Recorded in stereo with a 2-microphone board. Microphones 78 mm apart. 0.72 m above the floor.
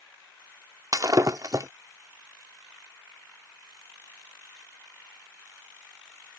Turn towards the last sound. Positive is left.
turn(degrees=-50)  # may be behind; listen again after turning